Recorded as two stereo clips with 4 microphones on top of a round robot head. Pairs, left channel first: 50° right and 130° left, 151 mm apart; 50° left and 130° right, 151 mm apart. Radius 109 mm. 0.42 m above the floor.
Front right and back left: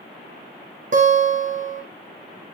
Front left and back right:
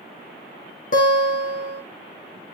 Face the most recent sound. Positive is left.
turn(degrees=90)